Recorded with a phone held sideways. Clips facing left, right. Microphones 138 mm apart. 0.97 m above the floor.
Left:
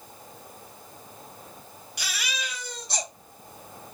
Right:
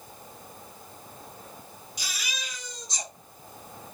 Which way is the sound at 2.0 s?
70° left (ahead or behind).